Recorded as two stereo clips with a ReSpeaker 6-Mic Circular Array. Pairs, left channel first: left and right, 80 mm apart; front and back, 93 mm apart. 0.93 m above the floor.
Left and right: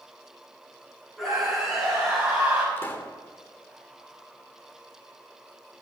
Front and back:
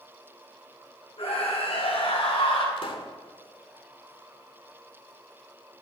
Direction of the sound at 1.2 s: Straight ahead.